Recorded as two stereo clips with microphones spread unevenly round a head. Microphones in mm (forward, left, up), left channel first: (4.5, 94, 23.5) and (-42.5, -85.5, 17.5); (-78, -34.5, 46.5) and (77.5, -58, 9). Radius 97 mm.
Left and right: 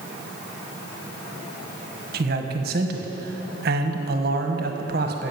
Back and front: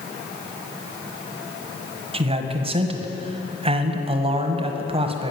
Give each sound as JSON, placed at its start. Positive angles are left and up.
{"t": 2.1, "sound": "a man speaking", "azimuth_deg": -65, "distance_m": 1.3}